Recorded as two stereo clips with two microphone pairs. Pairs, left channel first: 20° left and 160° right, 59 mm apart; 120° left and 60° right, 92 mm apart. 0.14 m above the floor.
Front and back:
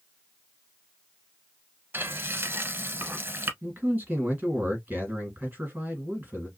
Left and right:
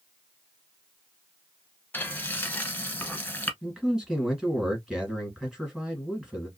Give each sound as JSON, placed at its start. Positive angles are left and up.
{"t": 1.9, "sound": "frying", "azimuth_deg": 180, "distance_m": 0.8}
{"t": 3.6, "sound": "a man speaking", "azimuth_deg": -140, "distance_m": 1.8}